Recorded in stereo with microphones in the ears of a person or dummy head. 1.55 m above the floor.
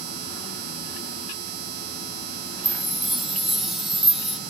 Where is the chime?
5° left (ahead or behind).